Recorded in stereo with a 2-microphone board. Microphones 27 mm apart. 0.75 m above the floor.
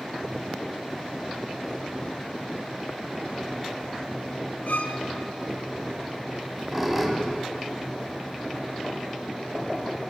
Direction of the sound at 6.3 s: 15° right (ahead or behind).